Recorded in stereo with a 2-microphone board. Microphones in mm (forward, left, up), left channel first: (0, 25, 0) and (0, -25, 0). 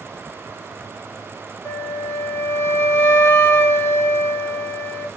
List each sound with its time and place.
1.6 s a flute: 55° left (ahead or behind), 0.6 m